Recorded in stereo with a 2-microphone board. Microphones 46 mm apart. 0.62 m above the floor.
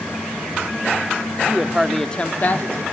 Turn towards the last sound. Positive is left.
turn(degrees=55)  # may be behind; listen again after turning